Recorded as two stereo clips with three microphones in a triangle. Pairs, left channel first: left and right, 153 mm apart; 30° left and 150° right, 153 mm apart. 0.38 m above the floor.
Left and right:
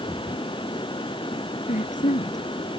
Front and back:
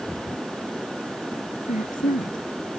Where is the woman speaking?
55° left.